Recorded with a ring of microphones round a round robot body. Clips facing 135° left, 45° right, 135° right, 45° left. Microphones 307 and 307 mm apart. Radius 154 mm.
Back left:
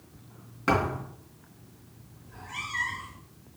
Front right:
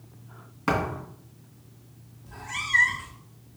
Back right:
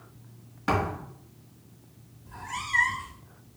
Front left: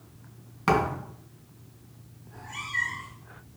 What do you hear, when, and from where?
0.7 s a thud: 35° left, 2.5 m
2.3 s a cat meowing: 70° right, 0.9 m